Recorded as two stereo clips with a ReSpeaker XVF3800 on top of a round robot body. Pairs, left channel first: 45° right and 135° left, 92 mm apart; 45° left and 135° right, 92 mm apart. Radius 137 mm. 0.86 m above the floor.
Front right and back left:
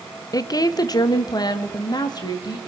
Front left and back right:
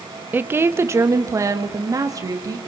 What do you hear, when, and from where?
0.3 s a woman speaking: 75° right, 1.1 m; by 2.6 s 85° right, 3 m